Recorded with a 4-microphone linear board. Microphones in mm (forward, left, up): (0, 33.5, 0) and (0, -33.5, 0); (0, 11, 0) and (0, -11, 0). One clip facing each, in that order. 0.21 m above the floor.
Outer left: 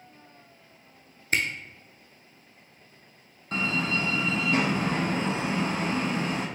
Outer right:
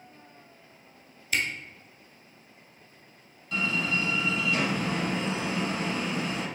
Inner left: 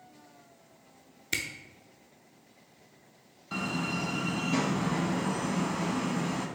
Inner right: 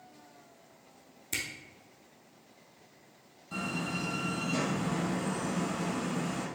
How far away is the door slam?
About 0.9 m.